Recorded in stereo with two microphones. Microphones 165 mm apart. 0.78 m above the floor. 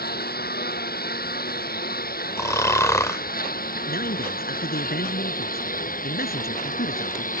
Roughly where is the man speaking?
Left.